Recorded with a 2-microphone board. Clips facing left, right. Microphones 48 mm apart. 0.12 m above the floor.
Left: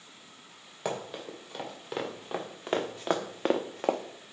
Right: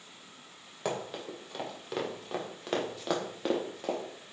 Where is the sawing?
No sawing in this recording.